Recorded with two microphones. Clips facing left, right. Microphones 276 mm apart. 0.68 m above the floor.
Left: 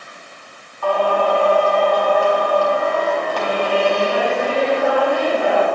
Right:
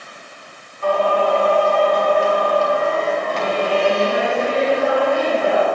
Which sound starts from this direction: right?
Singing, at 0.8 s.